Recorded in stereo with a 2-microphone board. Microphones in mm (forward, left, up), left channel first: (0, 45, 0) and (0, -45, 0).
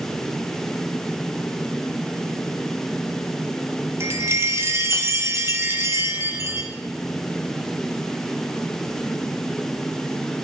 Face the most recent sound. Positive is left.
turn(degrees=-30)  # may be behind; listen again after turning